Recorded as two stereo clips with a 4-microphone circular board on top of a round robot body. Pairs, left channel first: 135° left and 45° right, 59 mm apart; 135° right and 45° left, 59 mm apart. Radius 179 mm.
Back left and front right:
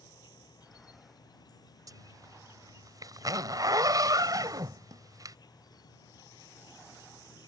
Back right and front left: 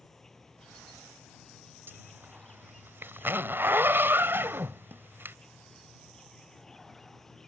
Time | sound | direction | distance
0.0 | an insect | 145° left | ?
1.9 | a zipper | 15° right | ?